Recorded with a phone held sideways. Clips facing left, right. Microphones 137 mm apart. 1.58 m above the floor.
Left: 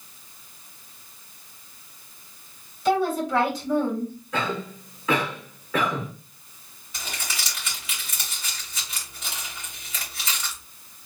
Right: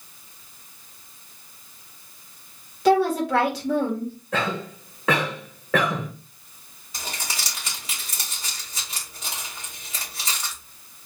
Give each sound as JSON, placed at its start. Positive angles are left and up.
{"t": 2.9, "sound": "a woman speaking", "side_deg": -70, "distance_m": 1.5}
{"t": 4.3, "sound": "a cough", "side_deg": -85, "distance_m": 1.4}
{"t": 6.9, "sound": "crumpling", "side_deg": -35, "distance_m": 2.5}